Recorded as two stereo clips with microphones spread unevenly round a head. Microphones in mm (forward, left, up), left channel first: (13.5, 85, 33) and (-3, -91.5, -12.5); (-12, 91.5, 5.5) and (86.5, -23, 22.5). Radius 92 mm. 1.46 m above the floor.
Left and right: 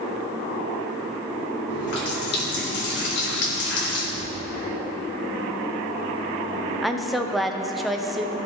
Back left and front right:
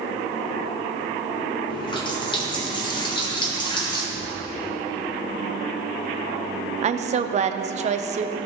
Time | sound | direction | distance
1.7 | a running tap | 70° left | 2.0 m
4.1 | a thud | 100° left | 3 m
6.8 | a woman speaking | 5° right | 0.7 m